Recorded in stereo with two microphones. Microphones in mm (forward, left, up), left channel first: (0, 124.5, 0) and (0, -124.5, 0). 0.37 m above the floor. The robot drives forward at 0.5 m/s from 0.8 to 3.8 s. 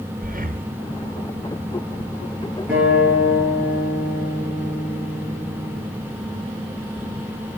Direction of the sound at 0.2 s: 35° right (ahead or behind).